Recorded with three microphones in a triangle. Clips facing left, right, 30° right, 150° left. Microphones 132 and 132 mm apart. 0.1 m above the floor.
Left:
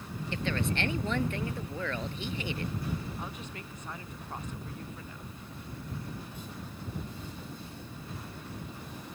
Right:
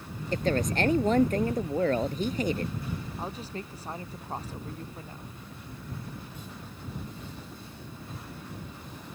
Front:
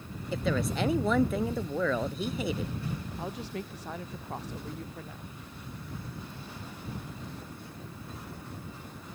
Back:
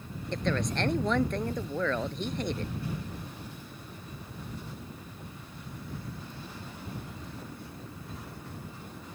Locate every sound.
0.3 s a woman speaking: 110° right
3.2 s a woman speaking: 35° right